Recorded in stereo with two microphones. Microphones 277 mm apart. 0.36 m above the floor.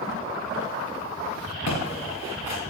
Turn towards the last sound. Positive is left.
turn(degrees=75)  # may be behind; listen again after turning